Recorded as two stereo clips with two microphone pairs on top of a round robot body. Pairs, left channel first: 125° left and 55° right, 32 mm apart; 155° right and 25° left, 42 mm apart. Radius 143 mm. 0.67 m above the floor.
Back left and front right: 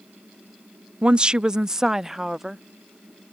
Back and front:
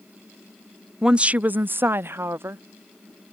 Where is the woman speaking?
40° right; by 2.6 s 30° left.